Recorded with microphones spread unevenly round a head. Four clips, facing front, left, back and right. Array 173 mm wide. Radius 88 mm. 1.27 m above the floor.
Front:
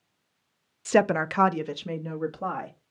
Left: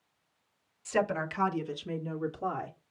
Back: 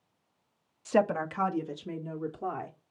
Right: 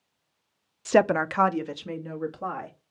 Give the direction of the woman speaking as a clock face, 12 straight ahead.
2 o'clock.